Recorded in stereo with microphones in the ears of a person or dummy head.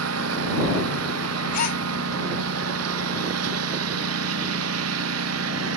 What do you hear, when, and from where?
0.0 s a lawn mower: 85° right
1.5 s a gasp: 50° left (ahead or behind)